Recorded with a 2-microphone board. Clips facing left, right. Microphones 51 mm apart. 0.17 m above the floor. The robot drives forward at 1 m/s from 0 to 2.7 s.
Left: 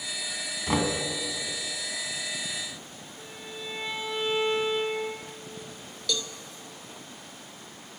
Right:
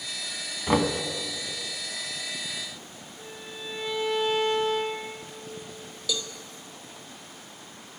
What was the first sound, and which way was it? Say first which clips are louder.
Knocking: right 3 dB; 15° right (ahead or behind).